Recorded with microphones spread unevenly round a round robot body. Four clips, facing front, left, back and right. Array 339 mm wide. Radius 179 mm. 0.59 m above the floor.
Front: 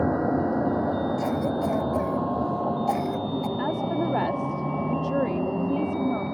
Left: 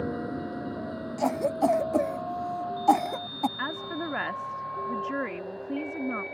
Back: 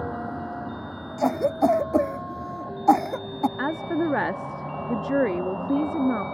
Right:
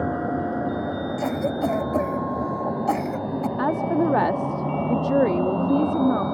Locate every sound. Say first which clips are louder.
0.0 s a vehicle: right 7 dB, front 8 dB; 25° right; by 6.3 s 65° right
1.2 s a cough: left 1 dB, back 3 dB; 175° left
3.6 s a woman speaking: right 12 dB, even; 115° right